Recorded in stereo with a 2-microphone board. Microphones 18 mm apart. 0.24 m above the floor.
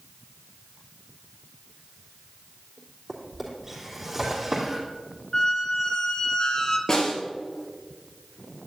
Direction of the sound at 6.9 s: 25° left (ahead or behind).